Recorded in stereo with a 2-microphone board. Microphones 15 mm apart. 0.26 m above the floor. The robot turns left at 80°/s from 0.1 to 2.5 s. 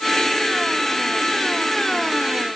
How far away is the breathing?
No breathing in this recording.